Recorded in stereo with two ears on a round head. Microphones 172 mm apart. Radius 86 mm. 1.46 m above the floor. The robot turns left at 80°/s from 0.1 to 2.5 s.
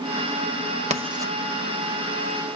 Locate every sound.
0.9 s writing: 35° right (ahead or behind), 0.8 m; by 1.3 s 10° right (ahead or behind), 0.8 m